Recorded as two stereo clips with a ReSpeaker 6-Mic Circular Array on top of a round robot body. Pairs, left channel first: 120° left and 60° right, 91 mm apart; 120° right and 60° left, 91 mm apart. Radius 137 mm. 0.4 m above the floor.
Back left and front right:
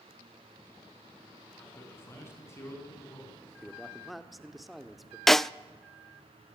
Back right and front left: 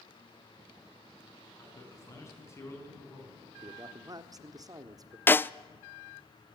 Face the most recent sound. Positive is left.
turn(degrees=-155)